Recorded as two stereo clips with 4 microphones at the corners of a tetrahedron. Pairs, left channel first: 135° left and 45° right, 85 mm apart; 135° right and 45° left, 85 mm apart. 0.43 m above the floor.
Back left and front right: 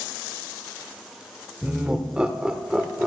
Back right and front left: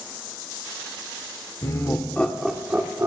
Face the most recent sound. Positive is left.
turn(degrees=30)